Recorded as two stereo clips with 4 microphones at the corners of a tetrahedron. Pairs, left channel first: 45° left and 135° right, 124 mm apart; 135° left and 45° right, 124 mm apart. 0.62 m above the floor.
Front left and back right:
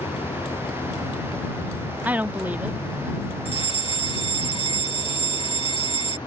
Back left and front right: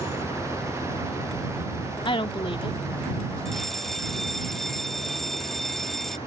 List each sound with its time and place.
0.0 s a vehicle: 85° left; by 6.3 s 95° left
2.0 s a woman speaking: 150° left
3.5 s a fire alarm: 50° left